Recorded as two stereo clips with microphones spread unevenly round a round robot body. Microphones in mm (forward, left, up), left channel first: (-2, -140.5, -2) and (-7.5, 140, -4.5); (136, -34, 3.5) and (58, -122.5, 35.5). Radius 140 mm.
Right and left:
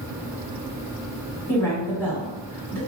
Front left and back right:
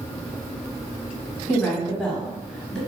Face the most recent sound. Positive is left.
turn(degrees=-10)